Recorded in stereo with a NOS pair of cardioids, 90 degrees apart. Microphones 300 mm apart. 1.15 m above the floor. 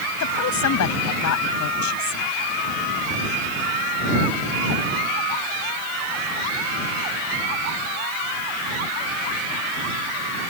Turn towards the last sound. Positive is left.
turn(degrees=70)